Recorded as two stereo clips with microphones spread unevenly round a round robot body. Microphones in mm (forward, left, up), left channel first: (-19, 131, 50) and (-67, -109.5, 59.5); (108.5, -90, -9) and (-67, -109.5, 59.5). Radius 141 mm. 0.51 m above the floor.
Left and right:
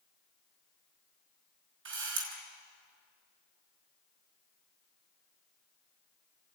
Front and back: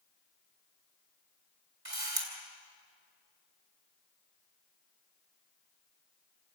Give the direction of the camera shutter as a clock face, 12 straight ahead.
5 o'clock.